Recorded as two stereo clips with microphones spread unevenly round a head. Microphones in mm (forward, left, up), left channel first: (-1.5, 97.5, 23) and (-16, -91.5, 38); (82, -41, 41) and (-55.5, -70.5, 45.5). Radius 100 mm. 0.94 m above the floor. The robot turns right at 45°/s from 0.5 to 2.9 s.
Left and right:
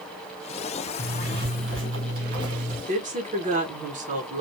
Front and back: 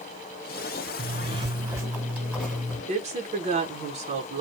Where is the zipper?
135° right, 1.3 m; by 2.8 s 55° right, 1.3 m.